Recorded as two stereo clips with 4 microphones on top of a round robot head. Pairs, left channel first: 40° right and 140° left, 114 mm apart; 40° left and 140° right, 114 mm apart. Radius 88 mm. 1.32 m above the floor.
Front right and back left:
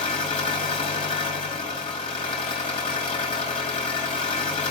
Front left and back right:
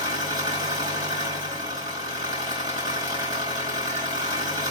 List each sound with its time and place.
0.0 s an engine running: 85° right, 4.5 m